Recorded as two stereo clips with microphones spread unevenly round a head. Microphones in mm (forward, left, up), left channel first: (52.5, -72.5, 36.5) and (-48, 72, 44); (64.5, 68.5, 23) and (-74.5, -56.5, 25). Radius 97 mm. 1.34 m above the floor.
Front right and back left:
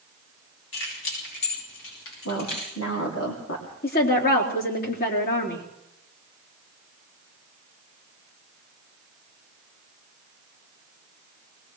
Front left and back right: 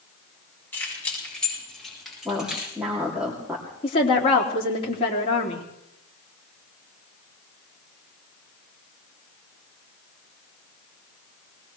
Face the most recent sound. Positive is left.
turn(degrees=-20)